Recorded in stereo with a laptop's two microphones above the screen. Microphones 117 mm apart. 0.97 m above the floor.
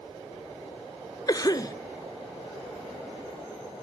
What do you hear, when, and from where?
1.3 s a cough: 30° left (ahead or behind), 0.5 m